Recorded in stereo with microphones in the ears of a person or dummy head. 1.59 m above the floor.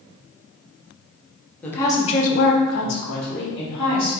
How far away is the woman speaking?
About 1.0 m.